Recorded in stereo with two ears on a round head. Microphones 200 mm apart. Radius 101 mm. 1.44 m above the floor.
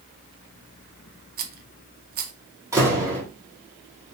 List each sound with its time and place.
1.4 s a rattle: 40° right (ahead or behind), 0.8 m
2.7 s a door slam: 15° right (ahead or behind), 1.9 m